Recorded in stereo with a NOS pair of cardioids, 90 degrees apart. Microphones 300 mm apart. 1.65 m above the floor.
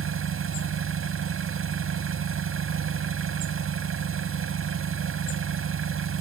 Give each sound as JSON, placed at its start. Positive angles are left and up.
{"t": 0.0, "sound": "an engine running", "azimuth_deg": -50}